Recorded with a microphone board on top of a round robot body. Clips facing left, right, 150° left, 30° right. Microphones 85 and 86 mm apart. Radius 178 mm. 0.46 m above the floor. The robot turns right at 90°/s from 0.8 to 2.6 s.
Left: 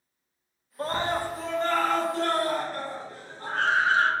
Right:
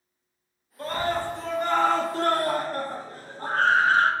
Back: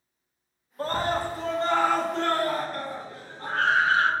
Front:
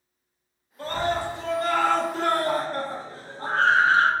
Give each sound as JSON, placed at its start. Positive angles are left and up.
{"t": 0.8, "sound": "a scream", "azimuth_deg": 125, "distance_m": 1.0}